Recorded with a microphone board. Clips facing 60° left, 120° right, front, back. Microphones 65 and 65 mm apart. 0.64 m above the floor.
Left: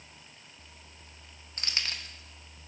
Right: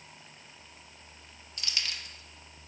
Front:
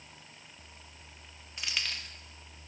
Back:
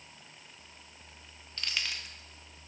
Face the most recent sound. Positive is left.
turn(degrees=125)